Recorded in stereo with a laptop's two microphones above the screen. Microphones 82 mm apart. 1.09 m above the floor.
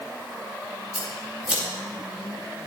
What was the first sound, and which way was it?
Scissors, 10° right (ahead or behind).